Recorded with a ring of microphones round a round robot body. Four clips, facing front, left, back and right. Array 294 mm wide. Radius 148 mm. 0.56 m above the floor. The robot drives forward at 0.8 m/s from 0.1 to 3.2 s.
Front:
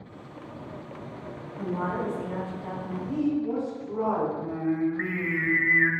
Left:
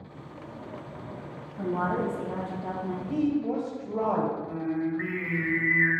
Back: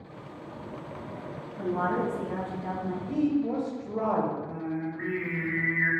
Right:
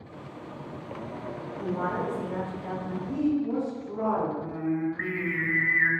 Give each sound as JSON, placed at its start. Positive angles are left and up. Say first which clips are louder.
{"t": 1.6, "sound": "a woman speaking", "louder": "left 2 dB, back 2 dB", "azimuth_deg": 110, "distance_m": 3.5}
{"t": 3.1, "sound": "a woman speaking", "louder": "right 1 dB, even", "azimuth_deg": 120, "distance_m": 2.5}
{"t": 4.4, "sound": "singing", "louder": "right 1 dB, front 6 dB", "azimuth_deg": -15, "distance_m": 1.3}